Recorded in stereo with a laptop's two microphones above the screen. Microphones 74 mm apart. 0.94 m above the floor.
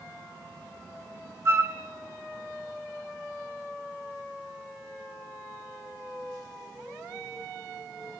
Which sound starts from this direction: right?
A flute, at 1.4 s.